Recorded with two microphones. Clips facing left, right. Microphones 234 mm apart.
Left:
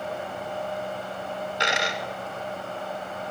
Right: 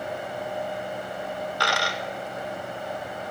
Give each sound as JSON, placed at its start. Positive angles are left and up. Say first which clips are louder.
{"t": 1.6, "sound": "a dropped coin", "louder": "left 2 dB", "side_deg": 20, "distance_m": 0.8}